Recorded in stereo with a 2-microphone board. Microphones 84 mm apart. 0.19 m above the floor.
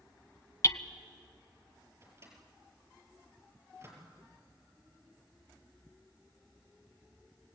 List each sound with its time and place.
0.6 s hammering: 40° left (ahead or behind), 0.8 m
2.0 s a microwave: 35° right (ahead or behind), 4.5 m